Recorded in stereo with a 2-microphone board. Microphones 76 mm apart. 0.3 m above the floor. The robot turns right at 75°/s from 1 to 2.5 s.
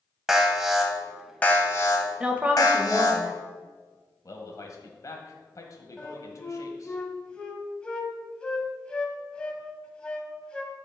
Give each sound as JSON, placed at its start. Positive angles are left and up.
{"t": 0.3, "sound": "an alarm", "azimuth_deg": -5, "distance_m": 1.4}
{"t": 2.2, "sound": "a woman speaking", "side_deg": -15, "distance_m": 1.0}
{"t": 4.2, "sound": "a man speaking", "side_deg": 45, "distance_m": 1.5}
{"t": 6.0, "sound": "a flute", "side_deg": 10, "distance_m": 1.0}